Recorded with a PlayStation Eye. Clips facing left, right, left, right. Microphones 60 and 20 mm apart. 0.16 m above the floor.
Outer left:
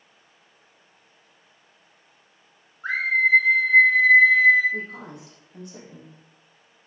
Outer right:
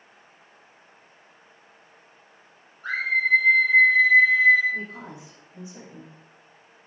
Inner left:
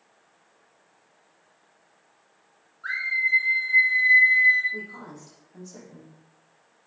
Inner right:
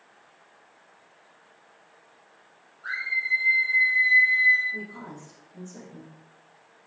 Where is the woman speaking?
55° left (ahead or behind), 5.5 m.